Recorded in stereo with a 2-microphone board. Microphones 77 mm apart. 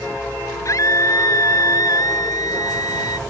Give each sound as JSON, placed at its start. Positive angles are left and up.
{"t": 0.7, "sound": "a scream", "side_deg": 40}